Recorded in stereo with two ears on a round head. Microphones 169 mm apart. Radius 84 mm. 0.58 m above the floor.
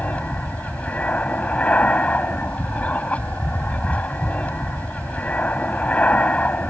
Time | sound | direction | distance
0.0 | an aircraft | 10° left (ahead or behind) | ?